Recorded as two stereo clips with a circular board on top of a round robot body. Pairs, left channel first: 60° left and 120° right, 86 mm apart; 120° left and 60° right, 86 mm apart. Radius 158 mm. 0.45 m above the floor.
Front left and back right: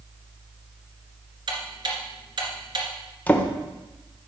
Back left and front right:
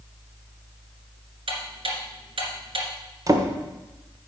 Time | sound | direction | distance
1.5 | ticking | 80° right | 2 m
3.3 | a drawer | 10° right | 1.4 m